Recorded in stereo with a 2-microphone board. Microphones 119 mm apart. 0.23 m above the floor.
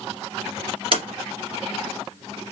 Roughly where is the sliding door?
Right.